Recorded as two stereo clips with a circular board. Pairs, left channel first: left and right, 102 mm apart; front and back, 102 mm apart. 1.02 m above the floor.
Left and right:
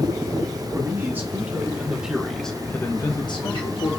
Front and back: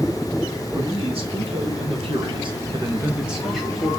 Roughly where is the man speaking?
Behind right.